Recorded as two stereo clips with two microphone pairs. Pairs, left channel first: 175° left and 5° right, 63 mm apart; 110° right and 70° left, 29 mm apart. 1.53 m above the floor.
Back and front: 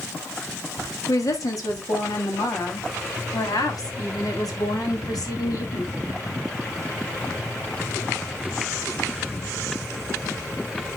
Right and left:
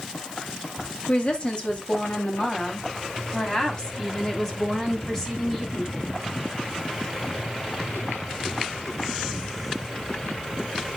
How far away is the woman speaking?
About 4 m.